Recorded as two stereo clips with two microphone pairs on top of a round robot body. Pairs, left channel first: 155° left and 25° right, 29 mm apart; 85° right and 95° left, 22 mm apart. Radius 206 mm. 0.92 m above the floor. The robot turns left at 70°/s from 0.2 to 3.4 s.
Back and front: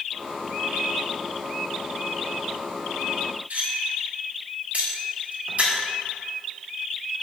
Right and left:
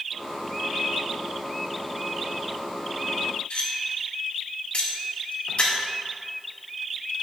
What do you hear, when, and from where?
3.5 s cutlery clinking: 55° right, 1.7 m